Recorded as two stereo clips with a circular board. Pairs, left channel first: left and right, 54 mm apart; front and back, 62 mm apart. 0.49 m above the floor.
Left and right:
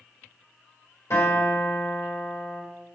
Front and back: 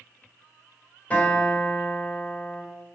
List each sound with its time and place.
1.1 s a guitar: 65° left, 4 m